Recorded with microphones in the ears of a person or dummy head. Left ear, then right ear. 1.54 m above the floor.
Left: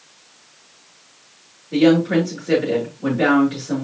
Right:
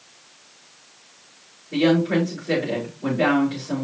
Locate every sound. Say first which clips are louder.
1.7 s a woman speaking: left 4 dB; centre (ahead or behind), 5 m